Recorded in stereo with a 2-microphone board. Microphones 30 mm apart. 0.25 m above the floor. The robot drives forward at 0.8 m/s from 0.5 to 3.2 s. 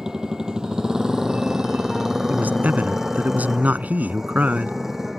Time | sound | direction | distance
0.0 | a motorcycle | 25° right (ahead or behind) | ?
2.3 | a man speaking | 60° right (ahead or behind) | ?